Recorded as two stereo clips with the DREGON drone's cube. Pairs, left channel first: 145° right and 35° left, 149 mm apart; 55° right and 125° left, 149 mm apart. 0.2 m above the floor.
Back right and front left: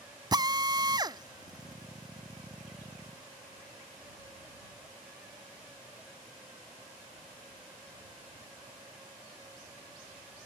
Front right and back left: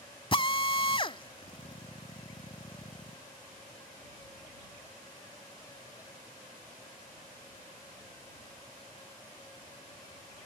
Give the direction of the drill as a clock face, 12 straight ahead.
1 o'clock.